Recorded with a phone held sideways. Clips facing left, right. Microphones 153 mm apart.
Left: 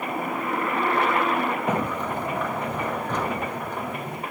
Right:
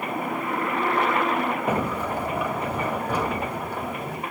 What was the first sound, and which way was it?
A sliding door, 10° right (ahead or behind).